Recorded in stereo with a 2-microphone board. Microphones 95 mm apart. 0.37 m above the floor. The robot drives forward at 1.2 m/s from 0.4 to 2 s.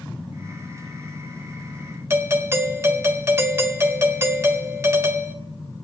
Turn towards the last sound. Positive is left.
turn(degrees=-30)  # may be behind; listen again after turning